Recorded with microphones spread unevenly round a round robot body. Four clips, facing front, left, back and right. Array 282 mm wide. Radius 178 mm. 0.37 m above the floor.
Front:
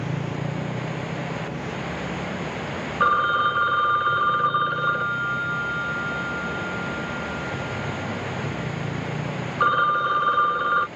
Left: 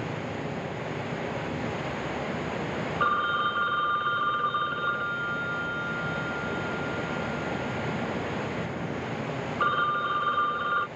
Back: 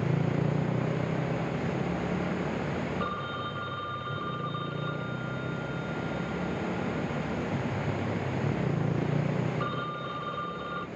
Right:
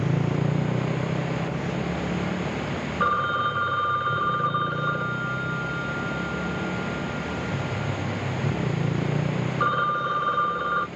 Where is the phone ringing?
20° right.